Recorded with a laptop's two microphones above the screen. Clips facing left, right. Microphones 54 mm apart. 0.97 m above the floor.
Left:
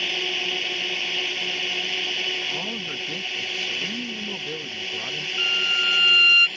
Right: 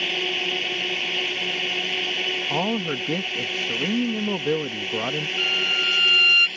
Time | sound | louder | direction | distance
0.0 | a drone | right 1 dB | 5° right (ahead or behind) | ?
2.5 | a man speaking | right 6 dB | 55° right (ahead or behind) | ?
5.4 | a violin | left 2 dB | 10° left (ahead or behind) | ?